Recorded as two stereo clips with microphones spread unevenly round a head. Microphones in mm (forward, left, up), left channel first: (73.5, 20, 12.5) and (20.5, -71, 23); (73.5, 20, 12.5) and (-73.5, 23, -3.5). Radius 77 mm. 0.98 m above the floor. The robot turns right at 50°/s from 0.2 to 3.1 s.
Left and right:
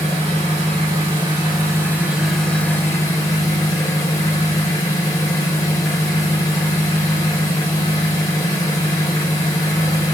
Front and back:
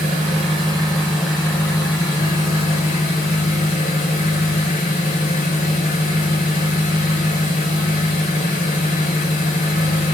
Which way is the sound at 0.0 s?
140° right.